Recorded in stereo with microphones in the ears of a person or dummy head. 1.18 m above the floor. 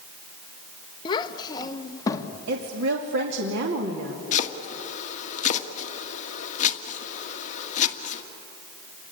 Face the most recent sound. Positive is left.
turn(degrees=45)  # may be behind; listen again after turning